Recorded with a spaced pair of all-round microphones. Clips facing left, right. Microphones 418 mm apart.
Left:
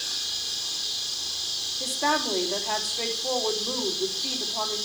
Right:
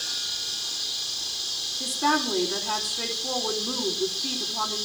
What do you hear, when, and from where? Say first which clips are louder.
1.8 s a woman speaking: right 2 dB; 25° right (ahead or behind), 3.5 m